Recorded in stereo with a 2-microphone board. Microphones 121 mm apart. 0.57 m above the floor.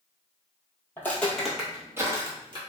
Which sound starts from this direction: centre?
Footsteps, at 1.0 s.